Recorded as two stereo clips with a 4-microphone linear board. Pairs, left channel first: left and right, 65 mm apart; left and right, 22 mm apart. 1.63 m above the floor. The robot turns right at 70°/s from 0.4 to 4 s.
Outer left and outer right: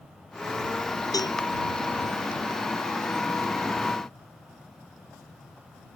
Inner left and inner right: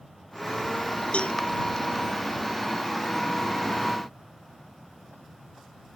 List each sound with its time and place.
1.1 s a cowbell: 65° left (ahead or behind); by 1.4 s 80° left